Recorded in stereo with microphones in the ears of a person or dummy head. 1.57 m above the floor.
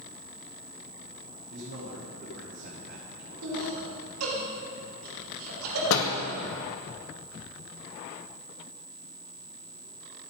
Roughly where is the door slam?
Left.